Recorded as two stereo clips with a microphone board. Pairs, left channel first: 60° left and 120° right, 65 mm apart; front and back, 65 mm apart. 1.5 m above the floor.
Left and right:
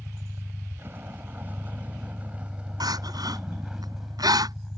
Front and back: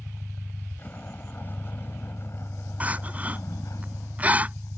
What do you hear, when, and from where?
0.0 s a vehicle: 70° right; by 4.8 s 30° right
2.8 s crying: 115° right